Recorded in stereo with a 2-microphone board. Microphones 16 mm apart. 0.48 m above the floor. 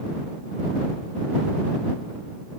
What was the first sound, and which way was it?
Only background noise.